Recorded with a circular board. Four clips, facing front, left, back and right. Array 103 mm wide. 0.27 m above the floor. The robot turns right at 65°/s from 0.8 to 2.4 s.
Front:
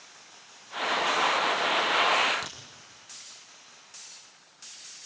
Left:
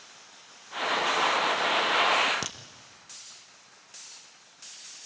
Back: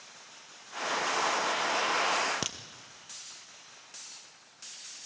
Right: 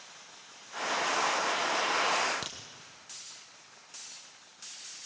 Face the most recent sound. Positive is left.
turn(degrees=155)